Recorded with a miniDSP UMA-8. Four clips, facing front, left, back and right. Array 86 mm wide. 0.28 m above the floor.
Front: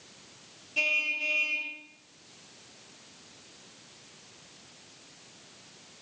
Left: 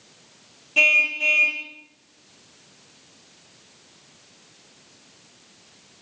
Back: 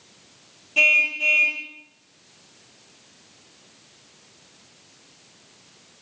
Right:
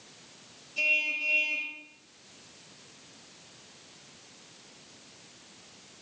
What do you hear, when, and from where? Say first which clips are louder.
0.8 s a car horn: left 11 dB, back 10 dB; 115° left, 9 m